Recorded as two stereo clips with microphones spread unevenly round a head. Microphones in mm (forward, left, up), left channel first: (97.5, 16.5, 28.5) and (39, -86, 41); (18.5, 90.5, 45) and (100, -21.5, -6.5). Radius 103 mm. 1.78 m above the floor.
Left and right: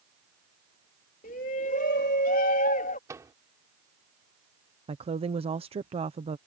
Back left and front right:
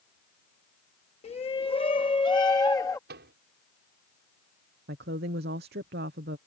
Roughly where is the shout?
Left.